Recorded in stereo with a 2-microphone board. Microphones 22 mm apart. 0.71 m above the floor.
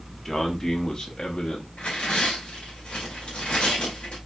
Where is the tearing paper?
50° left (ahead or behind), 2 m.